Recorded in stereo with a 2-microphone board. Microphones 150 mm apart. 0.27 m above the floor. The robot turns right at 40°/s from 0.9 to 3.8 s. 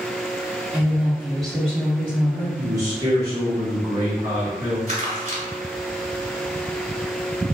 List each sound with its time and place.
0.7 s a woman speaking: 5° right (ahead or behind), 0.9 m; by 2.5 s 15° left (ahead or behind), 0.9 m
2.6 s a man speaking: 20° right (ahead or behind), 1.5 m; by 4.8 s 25° right (ahead or behind), 1.5 m
4.9 s crumpling: 50° right (ahead or behind), 1.4 m